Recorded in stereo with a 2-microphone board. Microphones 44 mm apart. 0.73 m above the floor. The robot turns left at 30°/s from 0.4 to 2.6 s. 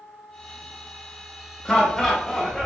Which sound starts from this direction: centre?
Laughter, at 1.6 s.